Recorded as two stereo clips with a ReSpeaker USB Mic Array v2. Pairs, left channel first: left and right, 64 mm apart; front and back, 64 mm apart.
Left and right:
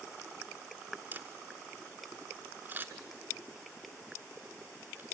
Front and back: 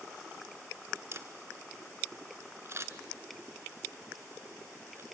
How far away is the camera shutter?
About 1.3 m.